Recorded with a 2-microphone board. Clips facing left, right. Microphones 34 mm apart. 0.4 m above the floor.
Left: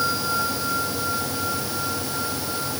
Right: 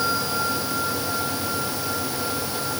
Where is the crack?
I don't hear a crack.